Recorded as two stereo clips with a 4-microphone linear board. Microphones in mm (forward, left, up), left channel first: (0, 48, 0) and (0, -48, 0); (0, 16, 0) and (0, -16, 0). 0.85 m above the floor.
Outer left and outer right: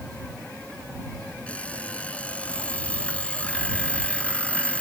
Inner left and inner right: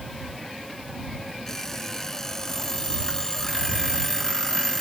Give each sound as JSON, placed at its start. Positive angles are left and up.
{"t": 1.5, "sound": "an alarm clock", "side_deg": 15}